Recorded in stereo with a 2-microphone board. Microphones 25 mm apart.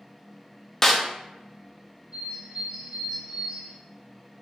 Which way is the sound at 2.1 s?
50° right (ahead or behind).